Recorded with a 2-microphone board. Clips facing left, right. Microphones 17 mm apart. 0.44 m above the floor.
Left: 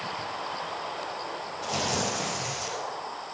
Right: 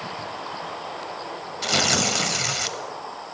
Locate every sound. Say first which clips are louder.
1.6 s tearing paper: right 8 dB; 75° right (ahead or behind), 0.8 m